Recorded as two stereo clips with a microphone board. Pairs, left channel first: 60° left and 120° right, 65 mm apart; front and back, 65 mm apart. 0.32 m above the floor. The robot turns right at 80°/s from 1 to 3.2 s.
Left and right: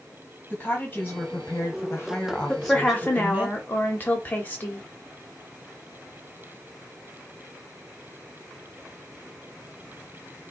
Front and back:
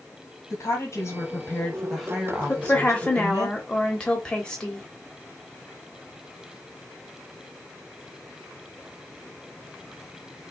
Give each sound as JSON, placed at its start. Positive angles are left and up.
{"t": 0.5, "sound": "a woman speaking", "azimuth_deg": 15, "distance_m": 1.5}
{"t": 2.5, "sound": "a woman speaking", "azimuth_deg": 0, "distance_m": 1.0}